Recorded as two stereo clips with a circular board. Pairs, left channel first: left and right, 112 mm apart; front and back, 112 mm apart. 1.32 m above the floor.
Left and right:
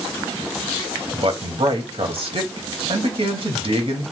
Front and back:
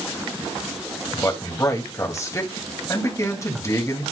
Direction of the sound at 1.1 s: 60° right.